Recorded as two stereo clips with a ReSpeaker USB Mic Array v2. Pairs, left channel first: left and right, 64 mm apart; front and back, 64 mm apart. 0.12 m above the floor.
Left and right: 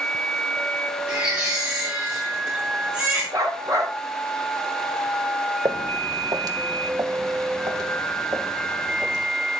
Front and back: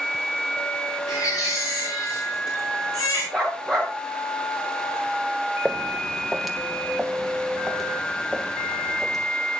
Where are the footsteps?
95° right, 0.9 m; by 9.2 s 90° right, 3 m.